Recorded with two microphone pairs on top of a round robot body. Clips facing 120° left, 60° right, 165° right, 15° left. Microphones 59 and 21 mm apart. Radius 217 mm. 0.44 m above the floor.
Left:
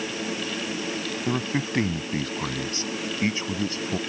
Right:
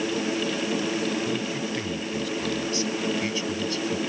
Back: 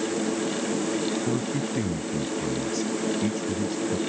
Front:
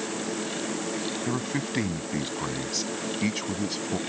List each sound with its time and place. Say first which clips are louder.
1.3 s a man speaking: left 1 dB, back 2 dB; 80° left; by 4.0 s 60° left